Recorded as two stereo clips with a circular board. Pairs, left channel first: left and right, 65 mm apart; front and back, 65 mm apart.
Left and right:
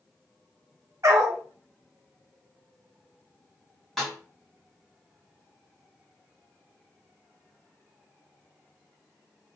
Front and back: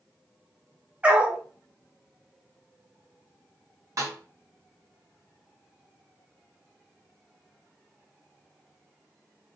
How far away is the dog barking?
About 0.6 m.